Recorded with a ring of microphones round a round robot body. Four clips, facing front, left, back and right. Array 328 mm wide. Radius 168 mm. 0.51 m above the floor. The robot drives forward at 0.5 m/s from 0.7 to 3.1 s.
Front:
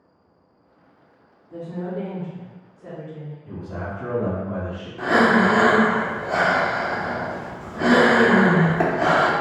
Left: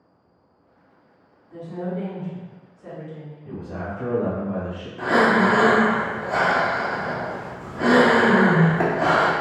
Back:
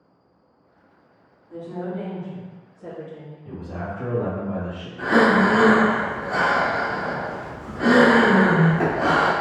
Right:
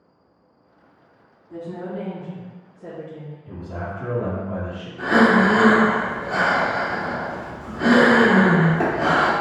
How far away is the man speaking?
About 1.3 m.